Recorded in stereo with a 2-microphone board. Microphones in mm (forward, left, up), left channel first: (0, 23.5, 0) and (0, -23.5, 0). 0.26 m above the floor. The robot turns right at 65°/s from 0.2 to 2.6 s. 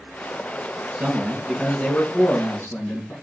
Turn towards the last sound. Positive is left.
turn(degrees=85)